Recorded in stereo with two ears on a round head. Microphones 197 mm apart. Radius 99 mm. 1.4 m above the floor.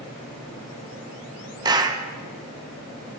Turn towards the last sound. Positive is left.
turn(degrees=-20)  # may be behind; listen again after turning